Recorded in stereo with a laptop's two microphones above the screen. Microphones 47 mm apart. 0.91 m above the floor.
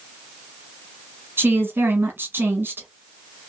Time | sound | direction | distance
1.4 | a woman speaking | 55° right (ahead or behind) | 1.1 m